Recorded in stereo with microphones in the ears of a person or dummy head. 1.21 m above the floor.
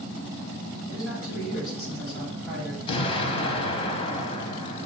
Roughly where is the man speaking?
Centre.